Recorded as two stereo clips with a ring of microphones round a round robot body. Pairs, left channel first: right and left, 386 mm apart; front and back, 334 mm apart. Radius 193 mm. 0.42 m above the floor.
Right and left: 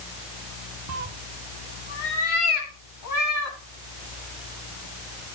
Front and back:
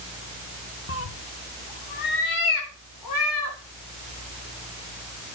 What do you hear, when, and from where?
0.9 s a cat meowing: 50° left, 0.6 m; by 3.6 s 45° right, 2.5 m